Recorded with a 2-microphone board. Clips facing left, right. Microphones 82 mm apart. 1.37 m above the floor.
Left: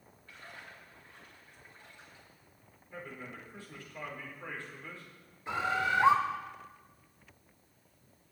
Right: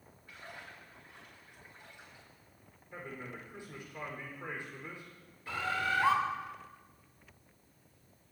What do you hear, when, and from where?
0.3 s a splash: 15° right (ahead or behind), 8 m
2.9 s a man speaking: 15° right (ahead or behind), 5 m
5.5 s a bird: 25° left (ahead or behind), 1.5 m